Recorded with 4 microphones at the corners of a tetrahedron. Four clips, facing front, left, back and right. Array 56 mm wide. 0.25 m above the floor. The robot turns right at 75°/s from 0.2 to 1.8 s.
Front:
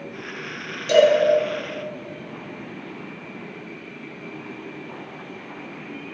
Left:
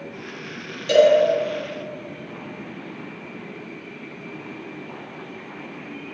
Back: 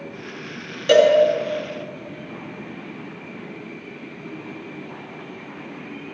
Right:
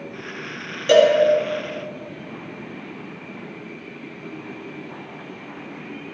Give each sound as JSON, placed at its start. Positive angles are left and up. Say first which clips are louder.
{"t": 0.9, "sound": "a cowbell", "louder": "right 1 dB, back 1 dB", "azimuth_deg": -145, "distance_m": 2.5}